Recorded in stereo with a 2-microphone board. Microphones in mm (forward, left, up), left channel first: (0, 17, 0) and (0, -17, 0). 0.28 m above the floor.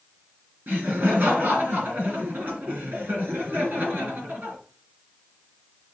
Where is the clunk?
No clunk in this recording.